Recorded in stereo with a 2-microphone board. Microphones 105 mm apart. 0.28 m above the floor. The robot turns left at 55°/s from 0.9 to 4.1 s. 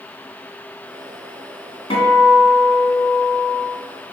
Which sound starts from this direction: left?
A guitar, at 1.9 s.